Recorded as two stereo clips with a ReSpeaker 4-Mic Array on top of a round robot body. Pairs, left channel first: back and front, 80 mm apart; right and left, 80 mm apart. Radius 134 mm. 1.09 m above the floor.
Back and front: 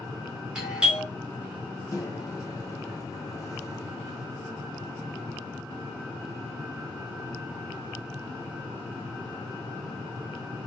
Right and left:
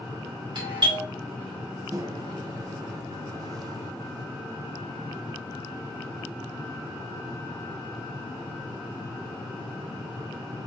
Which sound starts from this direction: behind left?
A microwave, at 1.9 s.